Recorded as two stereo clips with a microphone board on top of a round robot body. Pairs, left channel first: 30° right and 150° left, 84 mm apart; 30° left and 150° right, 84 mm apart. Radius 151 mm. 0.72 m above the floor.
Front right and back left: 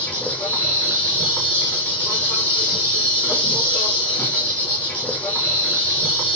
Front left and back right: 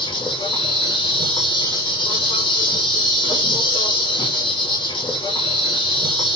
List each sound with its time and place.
0.0 s an insect: 45° left, 5.5 m